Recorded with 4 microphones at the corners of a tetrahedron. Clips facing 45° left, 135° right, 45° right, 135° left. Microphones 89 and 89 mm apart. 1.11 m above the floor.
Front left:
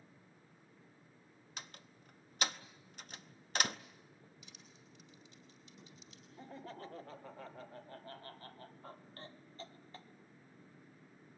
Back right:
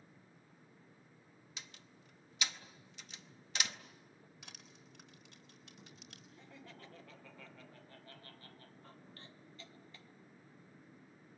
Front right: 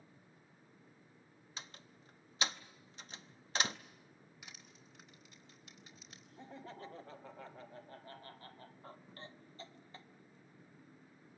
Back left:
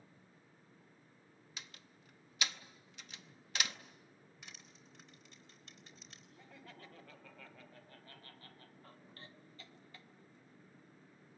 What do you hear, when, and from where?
1.6 s a door slam: 10° left, 0.7 m
4.4 s crushing: 130° right, 4 m
6.4 s laughter: 5° left, 1.1 m